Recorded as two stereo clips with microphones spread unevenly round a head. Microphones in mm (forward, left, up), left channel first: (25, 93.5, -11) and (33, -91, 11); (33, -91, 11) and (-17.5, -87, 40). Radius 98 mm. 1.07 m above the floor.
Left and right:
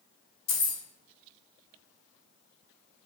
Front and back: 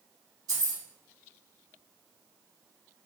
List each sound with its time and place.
0.5 s keys jangling: 120° left, 0.7 m